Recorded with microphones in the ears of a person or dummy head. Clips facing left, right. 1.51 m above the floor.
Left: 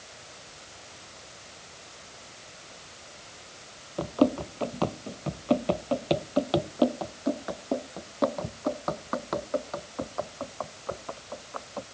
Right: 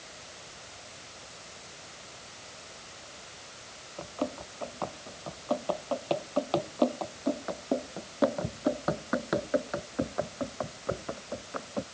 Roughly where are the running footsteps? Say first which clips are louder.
Left 11 dB; left.